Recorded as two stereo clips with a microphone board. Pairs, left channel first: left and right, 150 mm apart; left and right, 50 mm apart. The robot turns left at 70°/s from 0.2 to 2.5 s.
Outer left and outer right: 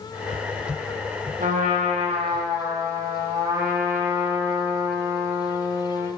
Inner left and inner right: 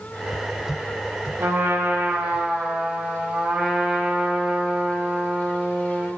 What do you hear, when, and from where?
1.4 s a trumpet: 80° right, 0.8 m; by 6.1 s 155° right, 0.8 m